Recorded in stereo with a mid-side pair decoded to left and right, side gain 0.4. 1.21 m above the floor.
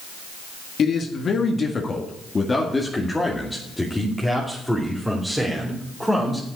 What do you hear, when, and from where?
0.8 s a man speaking: 60° left, 1.8 m; by 6.5 s 10° right, 4 m